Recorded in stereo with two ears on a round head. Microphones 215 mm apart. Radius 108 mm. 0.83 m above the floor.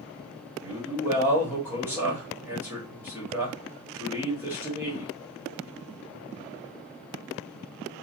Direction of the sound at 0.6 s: 10° right (ahead or behind).